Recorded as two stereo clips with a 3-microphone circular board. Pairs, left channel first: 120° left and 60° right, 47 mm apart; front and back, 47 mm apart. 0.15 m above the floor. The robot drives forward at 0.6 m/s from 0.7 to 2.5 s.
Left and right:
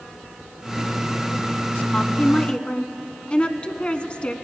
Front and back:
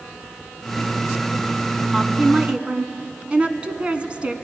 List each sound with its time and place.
1.9 s a woman speaking: 120° left, 1.0 m; by 4.3 s 150° left, 1.1 m